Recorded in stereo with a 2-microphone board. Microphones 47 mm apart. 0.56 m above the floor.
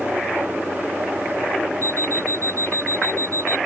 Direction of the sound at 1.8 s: 80° right.